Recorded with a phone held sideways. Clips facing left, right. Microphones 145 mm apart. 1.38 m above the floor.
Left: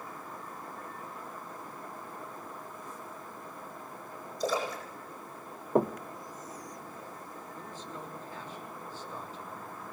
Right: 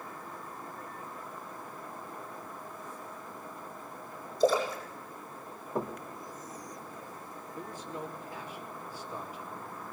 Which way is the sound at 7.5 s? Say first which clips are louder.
Right 5 dB; 10° right (ahead or behind).